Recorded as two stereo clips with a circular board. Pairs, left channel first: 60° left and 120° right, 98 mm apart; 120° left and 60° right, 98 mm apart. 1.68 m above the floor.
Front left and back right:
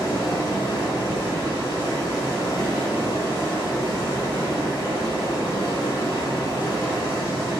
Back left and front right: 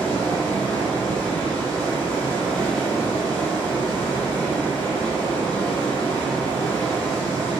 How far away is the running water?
About 0.9 m.